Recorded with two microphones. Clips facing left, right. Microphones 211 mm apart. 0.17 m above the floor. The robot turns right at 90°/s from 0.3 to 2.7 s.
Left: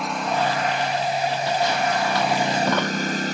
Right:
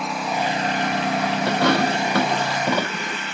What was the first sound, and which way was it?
A lawn mower, straight behind.